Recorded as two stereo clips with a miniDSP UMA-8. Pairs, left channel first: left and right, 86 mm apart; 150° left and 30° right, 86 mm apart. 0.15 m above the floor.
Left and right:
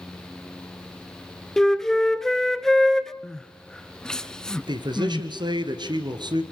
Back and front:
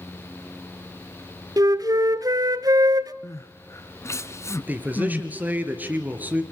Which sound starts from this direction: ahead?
A flute, at 1.6 s.